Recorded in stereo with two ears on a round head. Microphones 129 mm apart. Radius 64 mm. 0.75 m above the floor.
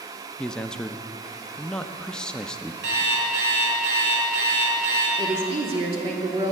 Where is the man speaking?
5° left (ahead or behind), 0.6 m.